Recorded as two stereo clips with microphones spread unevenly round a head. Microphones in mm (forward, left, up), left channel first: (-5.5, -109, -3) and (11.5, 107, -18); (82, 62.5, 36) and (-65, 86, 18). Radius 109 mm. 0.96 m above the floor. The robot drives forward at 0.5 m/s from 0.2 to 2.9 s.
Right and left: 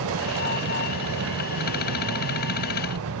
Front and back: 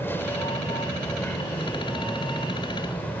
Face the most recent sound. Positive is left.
turn(degrees=70)